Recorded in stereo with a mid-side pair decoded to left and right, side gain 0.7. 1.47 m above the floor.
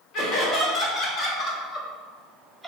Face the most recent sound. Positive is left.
turn(degrees=5)